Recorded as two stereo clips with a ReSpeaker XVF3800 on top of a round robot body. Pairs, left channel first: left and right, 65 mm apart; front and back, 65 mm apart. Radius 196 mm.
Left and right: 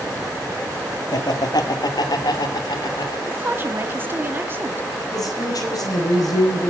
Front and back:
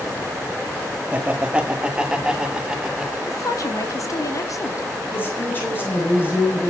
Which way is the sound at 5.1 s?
60° left.